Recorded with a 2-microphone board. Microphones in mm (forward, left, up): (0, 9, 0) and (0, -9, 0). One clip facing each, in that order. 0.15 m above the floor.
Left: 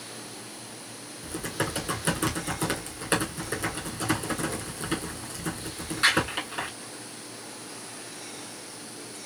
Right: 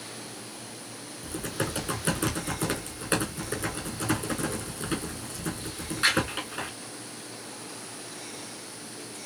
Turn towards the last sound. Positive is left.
turn(degrees=10)  # may be behind; listen again after turning